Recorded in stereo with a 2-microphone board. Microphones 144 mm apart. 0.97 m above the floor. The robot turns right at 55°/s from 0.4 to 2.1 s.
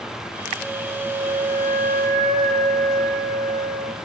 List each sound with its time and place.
0.6 s a flute: 170° right, 2 m; by 4.0 s 85° right, 2 m